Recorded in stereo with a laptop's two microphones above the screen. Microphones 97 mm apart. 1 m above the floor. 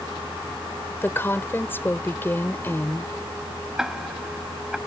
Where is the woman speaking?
20° left (ahead or behind).